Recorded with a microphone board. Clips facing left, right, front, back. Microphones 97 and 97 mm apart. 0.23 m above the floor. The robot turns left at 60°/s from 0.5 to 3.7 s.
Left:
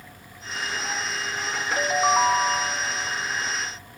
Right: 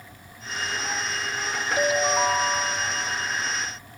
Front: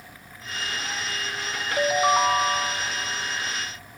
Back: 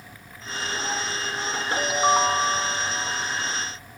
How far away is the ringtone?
About 1.5 m.